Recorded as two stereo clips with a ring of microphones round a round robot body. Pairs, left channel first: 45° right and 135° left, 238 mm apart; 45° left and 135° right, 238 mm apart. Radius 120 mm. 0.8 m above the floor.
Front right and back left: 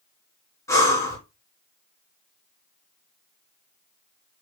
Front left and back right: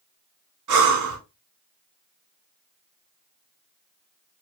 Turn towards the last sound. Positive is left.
turn(degrees=-125)